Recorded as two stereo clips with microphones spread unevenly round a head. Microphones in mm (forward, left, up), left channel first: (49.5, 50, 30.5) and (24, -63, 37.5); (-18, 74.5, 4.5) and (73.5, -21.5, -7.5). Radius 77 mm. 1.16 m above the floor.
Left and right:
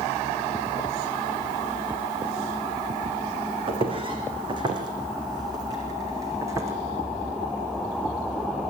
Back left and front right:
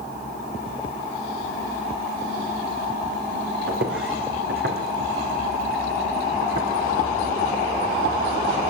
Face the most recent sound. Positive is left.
turn(degrees=-40)